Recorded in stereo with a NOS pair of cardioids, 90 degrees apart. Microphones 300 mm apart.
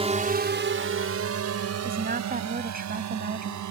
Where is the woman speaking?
30° right.